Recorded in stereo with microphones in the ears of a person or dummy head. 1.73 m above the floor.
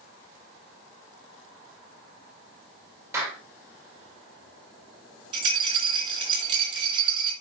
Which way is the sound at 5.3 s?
35° right (ahead or behind).